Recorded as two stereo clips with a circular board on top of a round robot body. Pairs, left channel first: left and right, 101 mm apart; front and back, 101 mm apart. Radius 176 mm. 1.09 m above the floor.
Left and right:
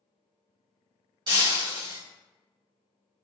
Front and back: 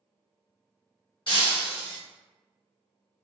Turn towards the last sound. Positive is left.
turn(degrees=-40)